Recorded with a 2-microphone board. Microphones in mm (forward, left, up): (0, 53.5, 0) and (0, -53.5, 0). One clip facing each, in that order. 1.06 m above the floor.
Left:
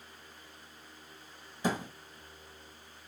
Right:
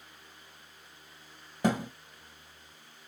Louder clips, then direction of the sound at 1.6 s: Right 4 dB; 60° right (ahead or behind).